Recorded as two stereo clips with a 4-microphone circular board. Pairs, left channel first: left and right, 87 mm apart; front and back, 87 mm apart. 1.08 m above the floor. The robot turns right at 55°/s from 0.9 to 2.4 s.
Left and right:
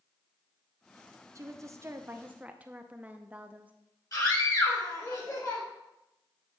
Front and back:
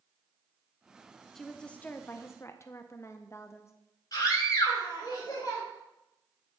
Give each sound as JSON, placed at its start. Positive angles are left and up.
{"t": 1.4, "sound": "a woman speaking", "azimuth_deg": -85, "distance_m": 0.6}
{"t": 4.1, "sound": "a scream", "azimuth_deg": 45, "distance_m": 3.5}